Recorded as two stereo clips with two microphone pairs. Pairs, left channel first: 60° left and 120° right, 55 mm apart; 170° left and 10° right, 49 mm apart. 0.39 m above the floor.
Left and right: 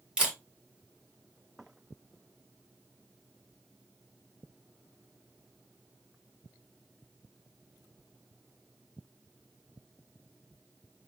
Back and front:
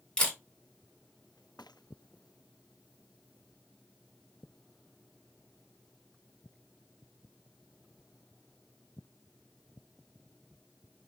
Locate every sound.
0.2 s a camera shutter: 145° right, 1.4 m